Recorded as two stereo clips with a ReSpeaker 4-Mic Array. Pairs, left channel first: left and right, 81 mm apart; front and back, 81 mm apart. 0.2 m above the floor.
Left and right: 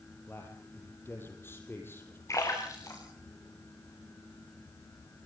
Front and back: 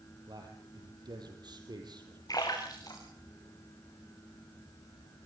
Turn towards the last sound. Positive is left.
turn(degrees=40)